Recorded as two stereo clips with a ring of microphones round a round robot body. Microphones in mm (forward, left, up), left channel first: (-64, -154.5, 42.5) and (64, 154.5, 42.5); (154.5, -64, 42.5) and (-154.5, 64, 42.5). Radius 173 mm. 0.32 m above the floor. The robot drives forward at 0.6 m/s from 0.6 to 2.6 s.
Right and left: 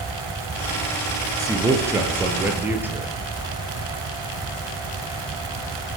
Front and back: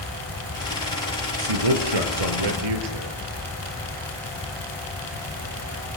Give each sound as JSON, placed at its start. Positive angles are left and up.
{"t": 1.4, "sound": "a man speaking", "azimuth_deg": 150, "distance_m": 6.0}